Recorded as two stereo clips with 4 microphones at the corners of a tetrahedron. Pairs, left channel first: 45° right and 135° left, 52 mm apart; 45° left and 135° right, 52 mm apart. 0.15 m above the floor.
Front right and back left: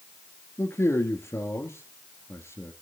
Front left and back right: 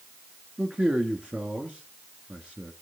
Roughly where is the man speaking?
Right.